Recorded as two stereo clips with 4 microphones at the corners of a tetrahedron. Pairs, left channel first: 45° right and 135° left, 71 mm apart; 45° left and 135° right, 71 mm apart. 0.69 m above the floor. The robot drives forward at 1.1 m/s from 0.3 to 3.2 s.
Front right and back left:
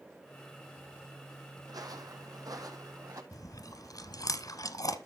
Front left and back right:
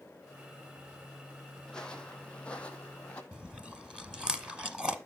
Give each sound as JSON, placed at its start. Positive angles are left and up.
{"t": 1.6, "sound": "footsteps", "azimuth_deg": 125, "distance_m": 1.7}
{"t": 3.3, "sound": "chewing", "azimuth_deg": -60, "distance_m": 0.9}